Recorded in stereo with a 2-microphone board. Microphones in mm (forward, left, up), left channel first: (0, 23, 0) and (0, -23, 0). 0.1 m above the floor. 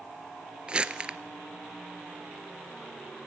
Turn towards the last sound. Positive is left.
turn(degrees=-20)  # may be behind; listen again after turning